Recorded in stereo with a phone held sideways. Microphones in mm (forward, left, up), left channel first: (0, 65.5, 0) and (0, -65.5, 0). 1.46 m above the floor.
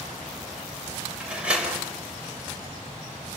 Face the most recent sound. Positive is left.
turn(degrees=-10)  # may be behind; listen again after turning